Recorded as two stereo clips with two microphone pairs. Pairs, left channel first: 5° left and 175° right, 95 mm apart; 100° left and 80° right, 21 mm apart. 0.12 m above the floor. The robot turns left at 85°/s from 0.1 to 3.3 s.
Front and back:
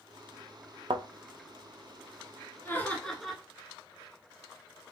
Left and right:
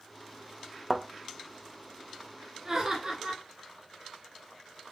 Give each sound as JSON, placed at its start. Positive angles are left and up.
{"t": 0.9, "sound": "a thud", "azimuth_deg": -160, "distance_m": 0.6}
{"t": 2.6, "sound": "laughter", "azimuth_deg": -25, "distance_m": 1.7}